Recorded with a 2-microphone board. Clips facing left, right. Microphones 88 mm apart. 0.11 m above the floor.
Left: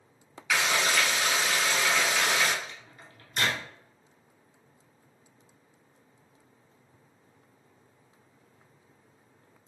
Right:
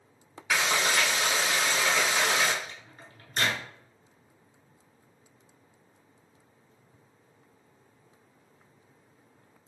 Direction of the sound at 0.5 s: 30° right (ahead or behind).